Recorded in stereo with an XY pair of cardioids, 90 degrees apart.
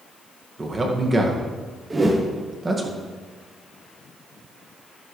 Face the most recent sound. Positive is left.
turn(degrees=-25)